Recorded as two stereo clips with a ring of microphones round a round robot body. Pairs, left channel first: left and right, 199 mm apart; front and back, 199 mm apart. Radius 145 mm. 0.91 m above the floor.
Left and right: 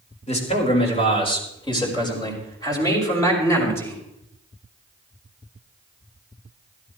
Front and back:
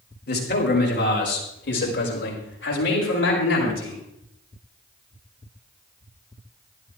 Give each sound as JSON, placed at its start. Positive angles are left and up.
{"t": 0.3, "sound": "a man speaking", "azimuth_deg": 35, "distance_m": 4.5}